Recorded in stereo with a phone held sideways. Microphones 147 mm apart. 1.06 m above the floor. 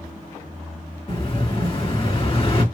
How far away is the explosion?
About 1.9 m.